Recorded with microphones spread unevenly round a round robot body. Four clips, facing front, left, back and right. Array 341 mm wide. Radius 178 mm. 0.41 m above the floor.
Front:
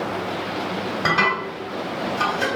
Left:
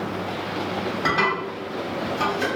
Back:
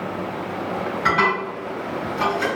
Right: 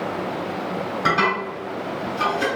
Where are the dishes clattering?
Straight ahead, 2.0 m.